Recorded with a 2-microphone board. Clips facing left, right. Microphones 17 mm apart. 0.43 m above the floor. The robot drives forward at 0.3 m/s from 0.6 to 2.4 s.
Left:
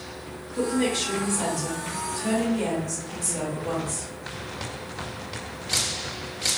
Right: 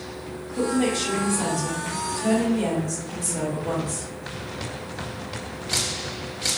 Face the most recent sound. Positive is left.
turn(degrees=15)  # may be behind; listen again after turning